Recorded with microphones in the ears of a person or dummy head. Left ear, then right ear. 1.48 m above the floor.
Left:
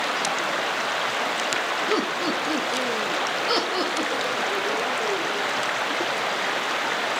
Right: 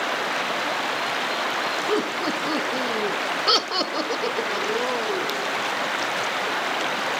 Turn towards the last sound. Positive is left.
turn(degrees=-85)